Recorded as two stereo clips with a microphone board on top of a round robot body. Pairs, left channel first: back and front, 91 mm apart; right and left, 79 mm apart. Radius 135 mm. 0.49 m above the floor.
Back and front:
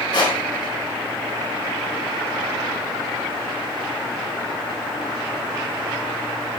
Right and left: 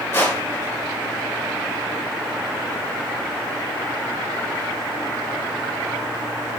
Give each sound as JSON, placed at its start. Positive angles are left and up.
{"t": 0.1, "sound": "crushing", "azimuth_deg": -145, "distance_m": 1.5}